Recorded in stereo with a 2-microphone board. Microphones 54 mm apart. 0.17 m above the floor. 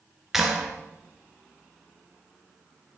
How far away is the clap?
About 1.8 m.